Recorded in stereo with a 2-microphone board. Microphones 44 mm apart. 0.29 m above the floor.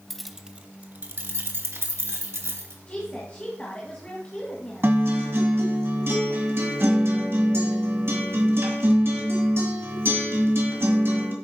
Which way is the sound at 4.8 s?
55° right (ahead or behind).